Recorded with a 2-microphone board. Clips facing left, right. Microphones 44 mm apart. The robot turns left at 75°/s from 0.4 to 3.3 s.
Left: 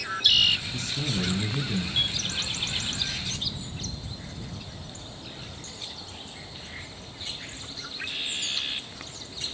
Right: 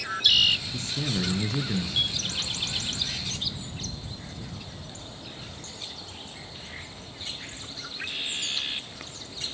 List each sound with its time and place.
0.7 s a man speaking: 25° right, 6.5 m; by 2.0 s 125° right, 6.5 m